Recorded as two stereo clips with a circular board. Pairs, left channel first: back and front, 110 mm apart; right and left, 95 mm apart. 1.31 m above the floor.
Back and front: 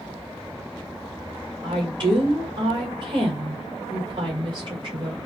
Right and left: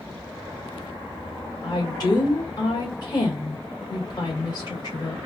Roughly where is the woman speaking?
Ahead right.